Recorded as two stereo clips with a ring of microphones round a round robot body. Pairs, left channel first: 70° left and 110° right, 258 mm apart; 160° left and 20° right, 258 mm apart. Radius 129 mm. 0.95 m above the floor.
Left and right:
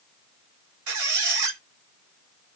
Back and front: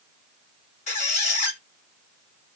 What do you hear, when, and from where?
0.9 s a squeak: 135° right, 1.8 m